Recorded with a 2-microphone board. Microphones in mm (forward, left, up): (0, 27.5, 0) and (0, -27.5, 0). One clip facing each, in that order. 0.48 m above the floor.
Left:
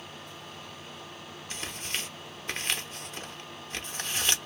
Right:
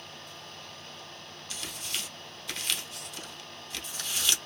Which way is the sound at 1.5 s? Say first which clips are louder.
Left 2 dB; 35° left (ahead or behind).